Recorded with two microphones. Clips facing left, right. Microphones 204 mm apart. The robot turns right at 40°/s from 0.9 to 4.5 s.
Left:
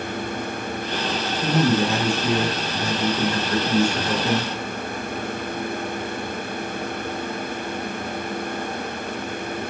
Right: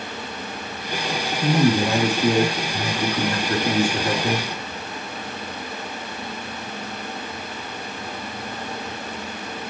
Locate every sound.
1.4 s a man speaking: 130° right, 1.5 m; by 4.5 s 5° right, 1.5 m